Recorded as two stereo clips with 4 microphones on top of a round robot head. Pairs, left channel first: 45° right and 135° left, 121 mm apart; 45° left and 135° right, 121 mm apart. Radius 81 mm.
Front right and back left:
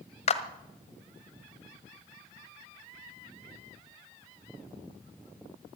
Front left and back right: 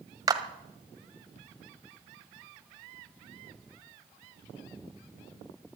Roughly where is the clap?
Right.